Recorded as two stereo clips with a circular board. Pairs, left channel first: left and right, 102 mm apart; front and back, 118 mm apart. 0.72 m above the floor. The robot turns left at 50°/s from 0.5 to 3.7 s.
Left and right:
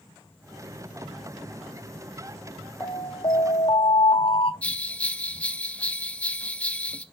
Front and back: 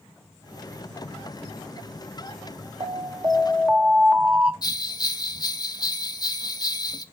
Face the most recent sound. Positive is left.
turn(degrees=20)